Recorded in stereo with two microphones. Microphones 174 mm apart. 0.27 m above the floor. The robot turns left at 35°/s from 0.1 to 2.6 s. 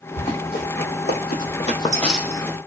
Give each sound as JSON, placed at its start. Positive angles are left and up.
{"t": 0.2, "sound": "running footsteps", "side_deg": 45, "distance_m": 1.2}